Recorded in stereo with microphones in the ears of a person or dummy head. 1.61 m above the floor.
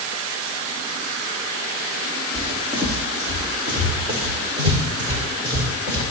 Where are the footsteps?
30° right (ahead or behind), 3.5 m; by 6.0 s 25° right (ahead or behind), 7.5 m.